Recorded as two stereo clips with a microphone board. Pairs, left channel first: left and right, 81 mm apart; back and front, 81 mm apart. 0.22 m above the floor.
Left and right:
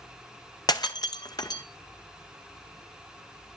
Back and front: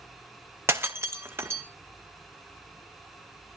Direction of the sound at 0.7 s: 60° left.